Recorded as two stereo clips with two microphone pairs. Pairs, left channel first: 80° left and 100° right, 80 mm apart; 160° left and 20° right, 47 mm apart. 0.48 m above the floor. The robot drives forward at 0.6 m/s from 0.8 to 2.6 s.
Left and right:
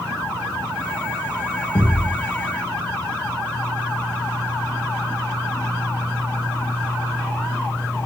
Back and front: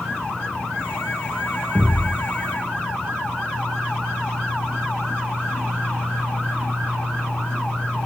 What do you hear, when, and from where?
1.8 s a thud: 40° left, 8.5 m